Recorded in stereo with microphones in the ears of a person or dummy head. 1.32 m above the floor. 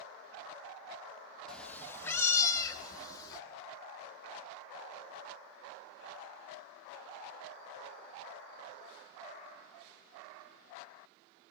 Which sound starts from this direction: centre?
A cat meowing, at 1.5 s.